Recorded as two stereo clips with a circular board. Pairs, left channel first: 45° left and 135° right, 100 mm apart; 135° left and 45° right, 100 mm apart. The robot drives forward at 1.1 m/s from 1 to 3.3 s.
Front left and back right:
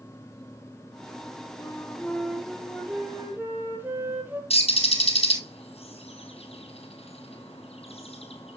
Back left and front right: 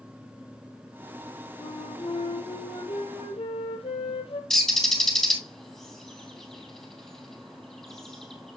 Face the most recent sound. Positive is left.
turn(degrees=50)